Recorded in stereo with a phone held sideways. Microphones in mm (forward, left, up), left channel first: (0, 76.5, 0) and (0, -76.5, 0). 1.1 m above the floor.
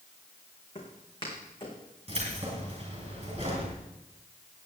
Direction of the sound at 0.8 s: 30° left (ahead or behind).